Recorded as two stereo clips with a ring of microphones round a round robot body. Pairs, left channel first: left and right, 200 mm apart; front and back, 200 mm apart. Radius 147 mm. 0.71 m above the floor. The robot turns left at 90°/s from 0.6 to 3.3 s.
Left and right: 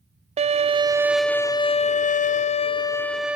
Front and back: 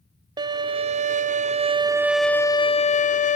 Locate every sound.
0.4 s a violin: 125° right, 0.5 m; by 3.4 s 10° right, 0.5 m